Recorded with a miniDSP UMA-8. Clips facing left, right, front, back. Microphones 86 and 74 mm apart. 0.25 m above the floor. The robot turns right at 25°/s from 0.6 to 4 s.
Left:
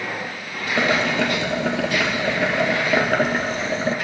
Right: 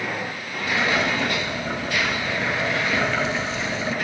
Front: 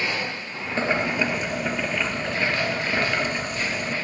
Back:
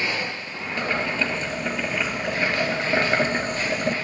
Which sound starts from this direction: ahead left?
Boiling, at 0.8 s.